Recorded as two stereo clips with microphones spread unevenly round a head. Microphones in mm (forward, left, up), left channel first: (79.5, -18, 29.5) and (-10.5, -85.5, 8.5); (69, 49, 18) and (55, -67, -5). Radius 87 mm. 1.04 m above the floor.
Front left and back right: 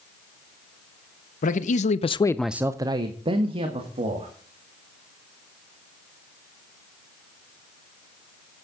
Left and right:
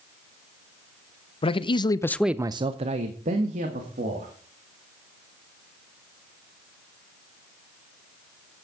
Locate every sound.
1.4 s a man speaking: 40° left, 1.0 m; by 4.3 s 115° right, 2 m